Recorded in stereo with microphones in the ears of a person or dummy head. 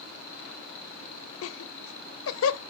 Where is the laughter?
75° left (ahead or behind), 0.7 m.